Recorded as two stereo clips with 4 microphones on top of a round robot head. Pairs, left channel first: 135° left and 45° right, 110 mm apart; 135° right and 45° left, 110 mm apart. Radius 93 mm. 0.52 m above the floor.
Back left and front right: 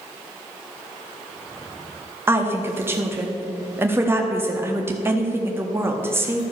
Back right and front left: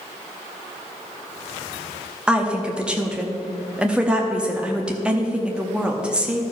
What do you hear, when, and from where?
2.3 s a woman speaking: 25° right, 1.0 m